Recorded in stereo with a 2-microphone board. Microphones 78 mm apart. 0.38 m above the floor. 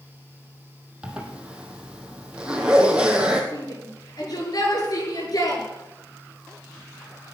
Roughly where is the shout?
Left.